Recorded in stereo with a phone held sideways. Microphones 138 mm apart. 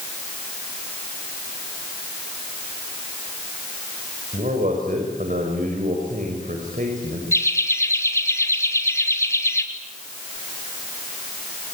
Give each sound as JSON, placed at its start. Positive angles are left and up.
{"t": 4.3, "sound": "a man speaking", "side_deg": -75, "distance_m": 5.5}
{"t": 7.3, "sound": "laughter", "side_deg": 20, "distance_m": 4.0}